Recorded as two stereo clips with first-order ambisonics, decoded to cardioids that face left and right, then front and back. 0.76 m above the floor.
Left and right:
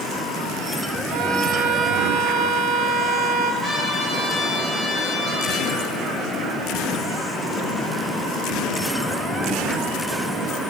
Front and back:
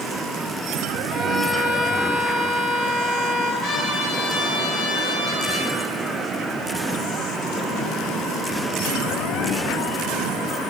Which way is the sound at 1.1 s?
85° right.